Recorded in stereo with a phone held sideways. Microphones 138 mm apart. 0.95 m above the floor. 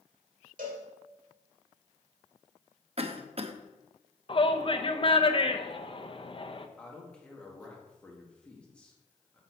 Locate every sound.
0.6 s a cowbell: 75° right (ahead or behind), 2 m
3.0 s a cough: 45° right (ahead or behind), 0.9 m
4.3 s a shout: 40° left (ahead or behind), 0.8 m
6.8 s a man speaking: 5° left (ahead or behind), 1.7 m